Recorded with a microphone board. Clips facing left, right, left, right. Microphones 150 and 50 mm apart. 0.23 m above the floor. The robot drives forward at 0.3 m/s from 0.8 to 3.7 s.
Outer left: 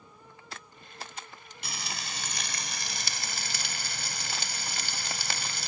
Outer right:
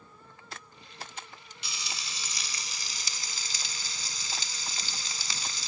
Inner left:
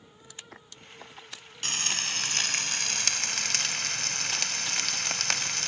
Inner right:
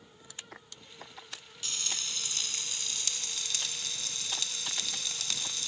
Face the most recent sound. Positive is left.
turn(degrees=65)  # may be behind; listen again after turning